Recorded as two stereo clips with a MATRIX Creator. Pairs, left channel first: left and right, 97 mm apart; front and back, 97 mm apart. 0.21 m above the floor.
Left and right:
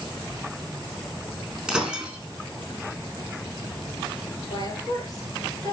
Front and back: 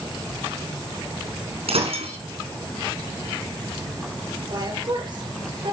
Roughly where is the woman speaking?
Behind left.